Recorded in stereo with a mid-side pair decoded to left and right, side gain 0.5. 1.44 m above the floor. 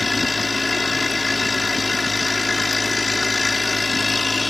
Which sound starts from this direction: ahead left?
A machine running, at 0.0 s.